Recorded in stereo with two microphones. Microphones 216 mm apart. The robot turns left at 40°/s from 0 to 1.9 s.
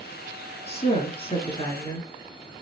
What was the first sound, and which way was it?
A woman speaking, 85° left.